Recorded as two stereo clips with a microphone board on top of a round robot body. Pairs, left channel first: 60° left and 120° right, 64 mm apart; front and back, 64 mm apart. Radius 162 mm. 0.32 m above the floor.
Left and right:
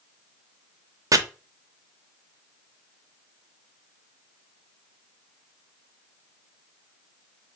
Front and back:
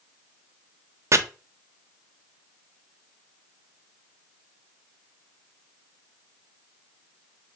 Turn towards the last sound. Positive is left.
turn(degrees=-140)